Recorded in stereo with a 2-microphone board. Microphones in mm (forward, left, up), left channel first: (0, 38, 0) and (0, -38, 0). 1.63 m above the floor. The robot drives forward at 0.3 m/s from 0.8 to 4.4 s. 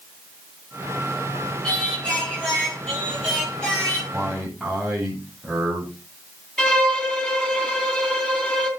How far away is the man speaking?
About 9 m.